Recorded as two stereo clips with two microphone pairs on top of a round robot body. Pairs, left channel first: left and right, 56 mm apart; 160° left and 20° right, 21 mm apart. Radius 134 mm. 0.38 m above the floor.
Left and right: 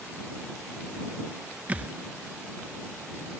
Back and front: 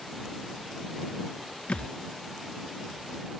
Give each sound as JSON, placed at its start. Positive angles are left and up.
{"t": 1.7, "sound": "a thud", "azimuth_deg": -160}